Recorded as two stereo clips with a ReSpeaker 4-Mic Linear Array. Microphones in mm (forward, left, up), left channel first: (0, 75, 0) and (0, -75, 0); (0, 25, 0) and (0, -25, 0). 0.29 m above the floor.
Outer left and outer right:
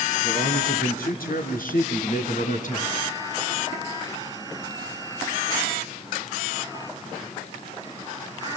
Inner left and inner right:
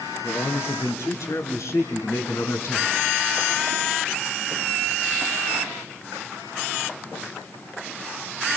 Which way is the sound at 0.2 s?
75° left (ahead or behind).